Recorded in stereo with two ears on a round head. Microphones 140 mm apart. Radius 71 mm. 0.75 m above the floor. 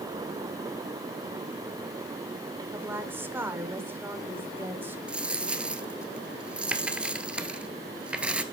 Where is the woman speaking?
15° right (ahead or behind), 2.5 m.